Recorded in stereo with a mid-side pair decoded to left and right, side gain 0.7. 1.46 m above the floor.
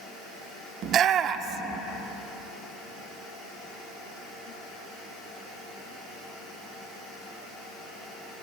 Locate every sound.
0.8 s a shout: 45° right, 1.0 m